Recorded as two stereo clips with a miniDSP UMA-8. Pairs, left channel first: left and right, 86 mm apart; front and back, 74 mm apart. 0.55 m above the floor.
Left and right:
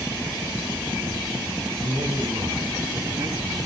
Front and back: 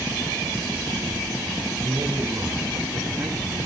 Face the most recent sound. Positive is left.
turn(degrees=-120)